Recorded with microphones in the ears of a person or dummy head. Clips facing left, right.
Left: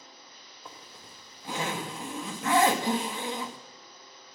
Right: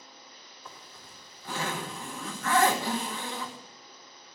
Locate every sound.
0.7 s a zipper: 15° left (ahead or behind), 2 m